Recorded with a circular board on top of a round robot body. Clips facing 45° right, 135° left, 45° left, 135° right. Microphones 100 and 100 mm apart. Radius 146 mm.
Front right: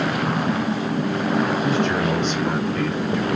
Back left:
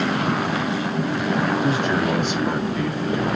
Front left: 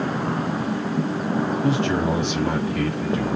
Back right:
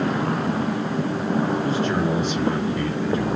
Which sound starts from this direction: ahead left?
A man speaking, at 1.6 s.